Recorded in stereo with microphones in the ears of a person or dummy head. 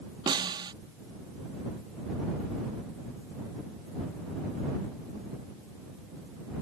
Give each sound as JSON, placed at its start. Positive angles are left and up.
{"t": 0.3, "sound": "a snare drum", "side_deg": -20}